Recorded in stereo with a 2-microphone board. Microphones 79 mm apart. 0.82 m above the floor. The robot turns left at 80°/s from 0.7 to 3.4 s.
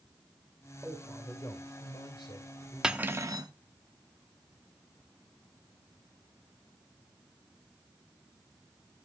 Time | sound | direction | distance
0.8 | a man speaking | 160° right | 3 m
2.8 | cutlery clinking | 10° right | 0.8 m